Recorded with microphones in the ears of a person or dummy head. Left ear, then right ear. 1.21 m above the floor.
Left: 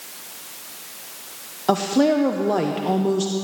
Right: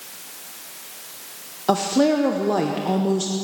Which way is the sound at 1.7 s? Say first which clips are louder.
Even; centre (ahead or behind).